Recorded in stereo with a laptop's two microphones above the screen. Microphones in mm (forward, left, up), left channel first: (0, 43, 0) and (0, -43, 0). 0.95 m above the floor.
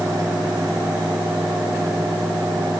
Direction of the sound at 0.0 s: 45° right (ahead or behind).